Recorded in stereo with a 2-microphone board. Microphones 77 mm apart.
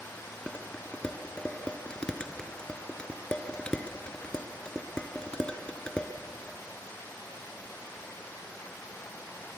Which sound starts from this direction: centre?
Dishes clattering, at 0.5 s.